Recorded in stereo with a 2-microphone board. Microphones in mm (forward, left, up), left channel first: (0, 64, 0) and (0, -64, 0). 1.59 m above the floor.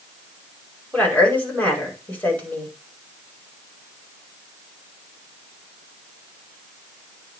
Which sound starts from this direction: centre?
A woman speaking, at 0.9 s.